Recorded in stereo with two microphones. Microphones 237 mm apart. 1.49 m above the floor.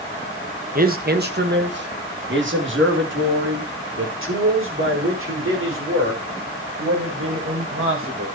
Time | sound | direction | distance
0.8 | a man speaking | 40° right (ahead or behind) | 1.7 m